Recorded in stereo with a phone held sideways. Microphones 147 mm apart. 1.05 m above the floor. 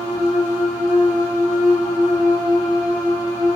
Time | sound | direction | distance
0.0 | a machine running | 20° right (ahead or behind) | 1.0 m